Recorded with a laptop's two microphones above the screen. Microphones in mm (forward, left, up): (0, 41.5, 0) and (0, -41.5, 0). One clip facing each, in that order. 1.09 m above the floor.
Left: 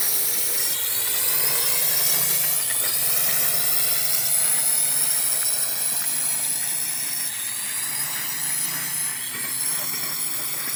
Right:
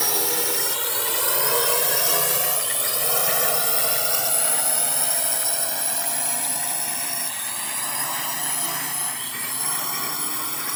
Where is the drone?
75° right (ahead or behind); by 10.8 s 65° right (ahead or behind).